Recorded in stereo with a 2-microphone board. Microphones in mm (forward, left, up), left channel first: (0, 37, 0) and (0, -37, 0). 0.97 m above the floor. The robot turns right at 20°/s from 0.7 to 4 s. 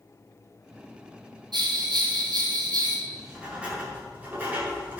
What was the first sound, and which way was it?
A bell, 75° right (ahead or behind).